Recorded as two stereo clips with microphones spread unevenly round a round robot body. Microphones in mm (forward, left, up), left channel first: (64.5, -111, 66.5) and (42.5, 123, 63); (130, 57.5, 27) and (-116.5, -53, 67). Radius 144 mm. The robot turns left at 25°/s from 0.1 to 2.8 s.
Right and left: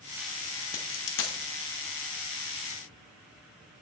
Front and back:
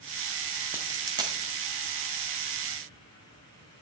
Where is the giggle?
I don't hear a giggle.